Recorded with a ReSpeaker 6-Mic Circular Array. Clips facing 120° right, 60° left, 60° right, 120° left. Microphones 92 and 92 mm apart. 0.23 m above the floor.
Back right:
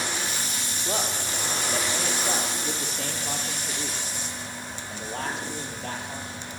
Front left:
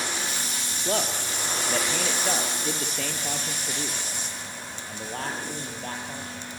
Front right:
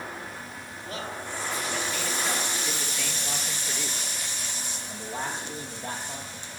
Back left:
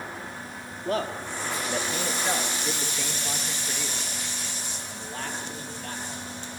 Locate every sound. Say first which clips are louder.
0.8 s a man speaking: front left 2 dB, back left 8 dB; 90° left, 5.5 m; by 6.5 s 5° left, 7.5 m